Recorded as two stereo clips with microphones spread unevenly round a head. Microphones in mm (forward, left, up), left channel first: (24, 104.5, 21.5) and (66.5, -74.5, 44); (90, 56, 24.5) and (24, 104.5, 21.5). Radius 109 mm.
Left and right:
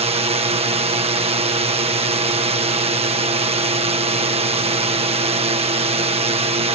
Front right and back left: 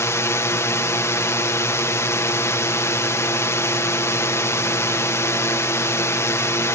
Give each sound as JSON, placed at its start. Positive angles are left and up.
{"t": 0.0, "sound": "a drone", "azimuth_deg": -45}